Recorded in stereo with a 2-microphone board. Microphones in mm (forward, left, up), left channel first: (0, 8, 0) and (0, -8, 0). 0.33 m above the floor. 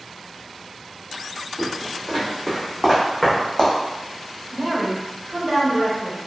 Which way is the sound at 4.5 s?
20° right (ahead or behind).